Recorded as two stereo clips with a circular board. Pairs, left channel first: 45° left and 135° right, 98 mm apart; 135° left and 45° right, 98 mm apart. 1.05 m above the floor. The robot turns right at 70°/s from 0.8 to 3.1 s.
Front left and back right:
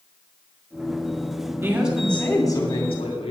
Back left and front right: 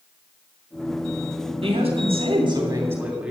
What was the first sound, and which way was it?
A woman speaking, 70° right.